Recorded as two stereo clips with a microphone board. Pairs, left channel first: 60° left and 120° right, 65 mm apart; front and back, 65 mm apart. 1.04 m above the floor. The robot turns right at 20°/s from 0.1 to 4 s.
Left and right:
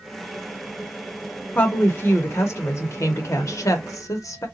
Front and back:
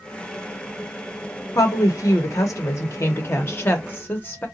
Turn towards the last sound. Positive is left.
turn(degrees=55)